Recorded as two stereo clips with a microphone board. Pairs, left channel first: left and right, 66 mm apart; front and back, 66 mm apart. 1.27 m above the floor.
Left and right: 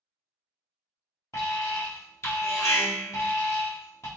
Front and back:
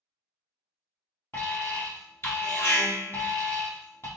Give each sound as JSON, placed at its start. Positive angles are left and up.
{"t": 1.3, "sound": "an alarm", "azimuth_deg": 50, "distance_m": 1.7}